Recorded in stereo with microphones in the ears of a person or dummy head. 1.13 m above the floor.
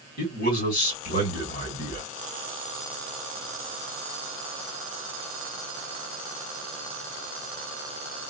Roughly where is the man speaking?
Left.